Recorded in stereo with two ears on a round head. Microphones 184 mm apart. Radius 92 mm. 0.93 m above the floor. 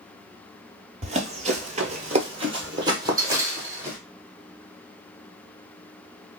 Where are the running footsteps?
30° right (ahead or behind), 1.2 m; by 4.0 s 10° right (ahead or behind), 1.9 m.